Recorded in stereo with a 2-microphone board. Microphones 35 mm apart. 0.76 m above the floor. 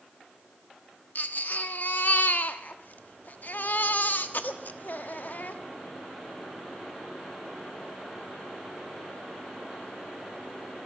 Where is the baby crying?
50° left (ahead or behind), 1.2 m.